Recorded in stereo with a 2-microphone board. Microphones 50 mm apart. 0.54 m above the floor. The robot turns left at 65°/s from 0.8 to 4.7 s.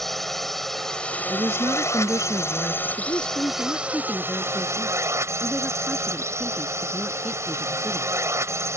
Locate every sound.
0.0 s a drone: 175° left; by 8.8 s 80° right
1.3 s a woman speaking: 55° right; by 2.9 s 155° right
3.0 s a woman speaking: 105° left; by 8.1 s 10° right